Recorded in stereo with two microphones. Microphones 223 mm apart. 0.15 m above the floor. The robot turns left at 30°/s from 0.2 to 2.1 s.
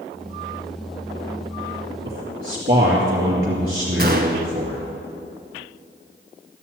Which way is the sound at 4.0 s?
45° right (ahead or behind).